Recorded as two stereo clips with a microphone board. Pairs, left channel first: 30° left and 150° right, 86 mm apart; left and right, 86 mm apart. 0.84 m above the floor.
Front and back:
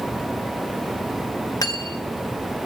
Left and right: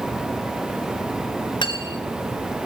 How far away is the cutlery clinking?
About 1.3 m.